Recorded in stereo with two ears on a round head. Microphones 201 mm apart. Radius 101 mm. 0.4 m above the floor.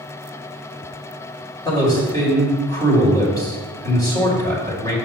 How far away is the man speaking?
About 2 m.